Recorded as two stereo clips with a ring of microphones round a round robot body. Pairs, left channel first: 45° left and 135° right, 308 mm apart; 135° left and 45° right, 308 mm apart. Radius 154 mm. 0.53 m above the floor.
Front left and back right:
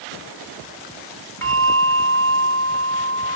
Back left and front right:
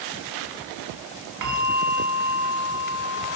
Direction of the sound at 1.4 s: 35° right.